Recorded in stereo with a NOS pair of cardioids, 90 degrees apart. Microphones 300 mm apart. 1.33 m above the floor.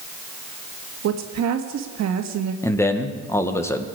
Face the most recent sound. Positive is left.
turn(degrees=10)